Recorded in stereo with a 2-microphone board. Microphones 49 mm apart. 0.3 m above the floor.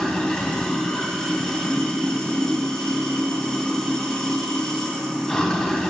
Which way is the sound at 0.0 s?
15° left (ahead or behind).